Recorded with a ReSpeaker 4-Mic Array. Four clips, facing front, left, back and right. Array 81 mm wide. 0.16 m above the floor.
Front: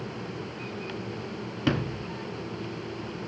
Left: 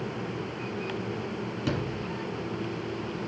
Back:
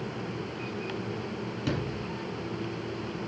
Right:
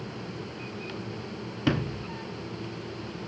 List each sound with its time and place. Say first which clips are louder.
1.7 s a sliding door: right 5 dB, front 5 dB; 40° right, 1.3 m